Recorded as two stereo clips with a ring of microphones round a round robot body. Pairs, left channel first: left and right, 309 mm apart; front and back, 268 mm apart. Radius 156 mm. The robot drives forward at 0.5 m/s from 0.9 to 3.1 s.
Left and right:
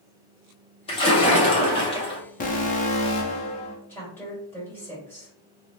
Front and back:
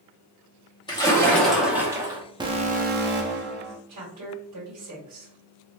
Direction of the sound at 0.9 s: 45° left.